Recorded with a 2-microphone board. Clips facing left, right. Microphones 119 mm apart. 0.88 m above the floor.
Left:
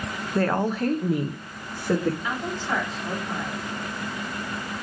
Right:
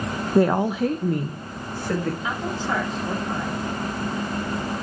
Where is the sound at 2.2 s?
30° right (ahead or behind), 5 m.